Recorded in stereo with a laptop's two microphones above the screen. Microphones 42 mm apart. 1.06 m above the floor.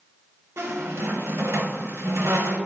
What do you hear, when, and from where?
0.6 s a squeak: 75° right (ahead or behind), 0.8 m